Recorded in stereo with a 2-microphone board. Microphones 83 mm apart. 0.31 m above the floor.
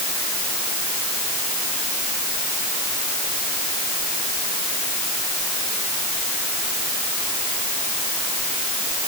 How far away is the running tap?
No running tap in this recording.